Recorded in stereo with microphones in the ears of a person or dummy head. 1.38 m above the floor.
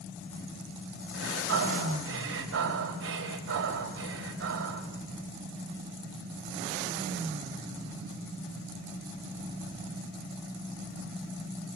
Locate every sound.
1.1 s breathing: 80° right, 4 m